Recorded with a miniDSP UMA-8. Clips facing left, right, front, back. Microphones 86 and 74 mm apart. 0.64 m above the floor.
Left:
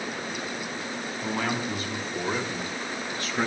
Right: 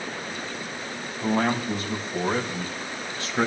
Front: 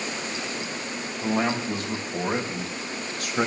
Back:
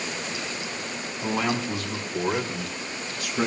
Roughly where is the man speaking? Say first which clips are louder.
Right 6 dB, front 1 dB; ahead right.